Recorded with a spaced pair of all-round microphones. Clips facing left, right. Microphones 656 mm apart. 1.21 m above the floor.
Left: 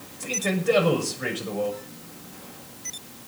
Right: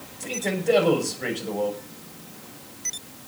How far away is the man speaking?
About 6.5 m.